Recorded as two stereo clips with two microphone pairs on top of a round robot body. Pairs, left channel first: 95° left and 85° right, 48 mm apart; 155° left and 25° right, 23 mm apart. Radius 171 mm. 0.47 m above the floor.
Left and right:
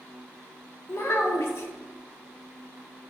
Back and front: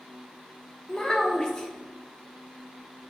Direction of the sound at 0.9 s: 95° left.